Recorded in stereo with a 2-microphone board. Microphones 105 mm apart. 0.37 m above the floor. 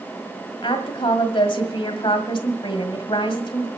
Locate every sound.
0.6 s a woman speaking: 55° left (ahead or behind), 1.8 m